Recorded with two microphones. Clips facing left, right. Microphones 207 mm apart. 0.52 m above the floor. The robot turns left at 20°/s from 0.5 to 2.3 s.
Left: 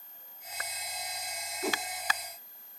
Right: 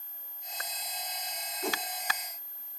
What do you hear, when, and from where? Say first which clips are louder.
1.6 s a whoosh: left 1 dB; 5° left (ahead or behind), 0.6 m